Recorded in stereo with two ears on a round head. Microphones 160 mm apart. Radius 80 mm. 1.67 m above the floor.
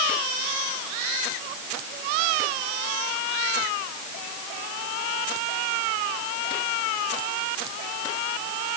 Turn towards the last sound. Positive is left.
No sound to turn to.